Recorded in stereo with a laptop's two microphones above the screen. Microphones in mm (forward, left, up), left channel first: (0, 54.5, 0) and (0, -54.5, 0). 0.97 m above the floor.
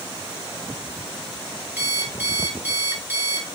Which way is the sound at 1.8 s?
20° right (ahead or behind).